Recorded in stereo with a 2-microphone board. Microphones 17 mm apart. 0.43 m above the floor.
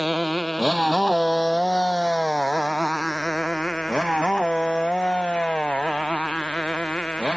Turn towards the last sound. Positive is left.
turn(degrees=65)  # may be behind; listen again after turning